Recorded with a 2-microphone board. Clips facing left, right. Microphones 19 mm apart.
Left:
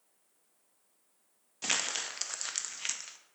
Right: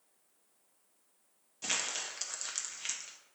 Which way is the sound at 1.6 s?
20° left (ahead or behind).